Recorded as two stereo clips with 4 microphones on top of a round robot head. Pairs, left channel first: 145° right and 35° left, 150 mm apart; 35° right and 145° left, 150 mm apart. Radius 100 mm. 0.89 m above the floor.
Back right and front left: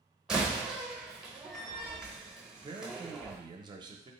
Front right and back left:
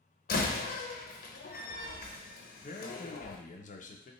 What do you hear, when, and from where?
0.3 s a door slam: 50° right, 0.8 m
2.6 s a man speaking: 20° right, 0.7 m